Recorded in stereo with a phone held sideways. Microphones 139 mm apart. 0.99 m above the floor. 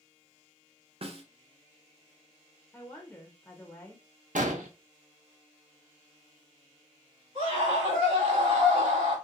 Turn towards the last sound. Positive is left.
turn(degrees=-45)  # may be behind; listen again after turning